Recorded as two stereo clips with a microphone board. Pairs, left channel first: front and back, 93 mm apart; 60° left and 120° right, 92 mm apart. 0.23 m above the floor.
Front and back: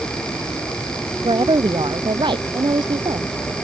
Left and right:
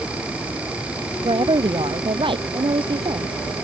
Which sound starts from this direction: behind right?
A woman speaking, at 1.2 s.